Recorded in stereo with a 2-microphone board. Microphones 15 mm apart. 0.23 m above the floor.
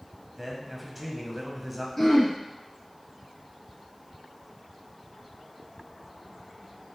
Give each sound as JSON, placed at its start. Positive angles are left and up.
{"t": 0.4, "sound": "a man speaking", "side_deg": -5, "distance_m": 1.0}
{"t": 2.0, "sound": "throat clearing", "side_deg": 20, "distance_m": 1.7}